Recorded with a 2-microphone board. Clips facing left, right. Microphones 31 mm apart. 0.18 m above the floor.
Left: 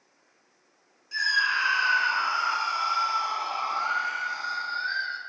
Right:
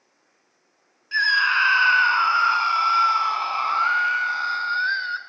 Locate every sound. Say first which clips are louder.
1.1 s a scream: right 6 dB; 45° right (ahead or behind), 1.5 m